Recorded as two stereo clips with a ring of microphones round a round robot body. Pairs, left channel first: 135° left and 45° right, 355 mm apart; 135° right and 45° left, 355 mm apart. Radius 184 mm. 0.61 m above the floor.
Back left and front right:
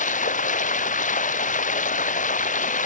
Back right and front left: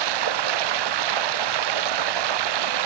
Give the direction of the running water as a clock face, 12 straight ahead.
10 o'clock.